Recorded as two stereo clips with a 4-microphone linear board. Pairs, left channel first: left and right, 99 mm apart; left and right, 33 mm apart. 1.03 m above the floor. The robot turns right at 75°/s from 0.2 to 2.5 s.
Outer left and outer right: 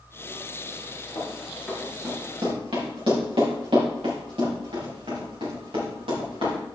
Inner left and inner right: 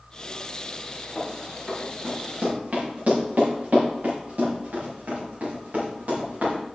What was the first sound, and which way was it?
Running footsteps, 45° left (ahead or behind).